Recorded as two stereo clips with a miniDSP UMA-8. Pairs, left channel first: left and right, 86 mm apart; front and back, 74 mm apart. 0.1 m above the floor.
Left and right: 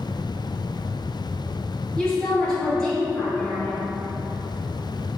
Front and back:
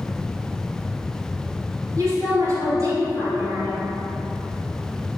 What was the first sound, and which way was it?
A woman speaking, 165° left.